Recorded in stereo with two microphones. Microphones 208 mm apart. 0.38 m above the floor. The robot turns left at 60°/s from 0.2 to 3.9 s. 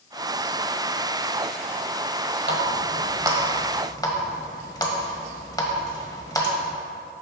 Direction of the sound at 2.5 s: 55° right (ahead or behind).